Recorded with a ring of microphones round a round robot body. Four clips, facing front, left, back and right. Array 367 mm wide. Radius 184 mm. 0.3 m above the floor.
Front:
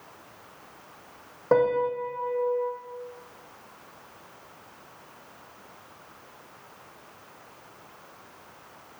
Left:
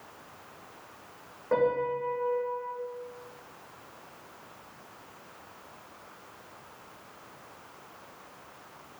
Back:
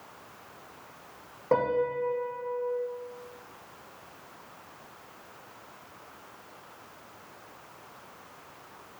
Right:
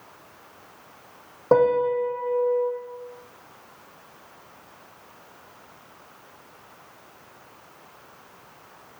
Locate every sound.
1.5 s a piano: 80° right, 3 m